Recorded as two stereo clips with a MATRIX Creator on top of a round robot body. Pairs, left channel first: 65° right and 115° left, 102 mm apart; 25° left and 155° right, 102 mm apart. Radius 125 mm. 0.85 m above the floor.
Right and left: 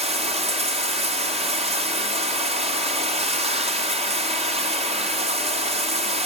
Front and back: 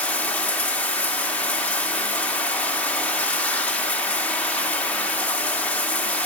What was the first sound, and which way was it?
Running water, 100° left.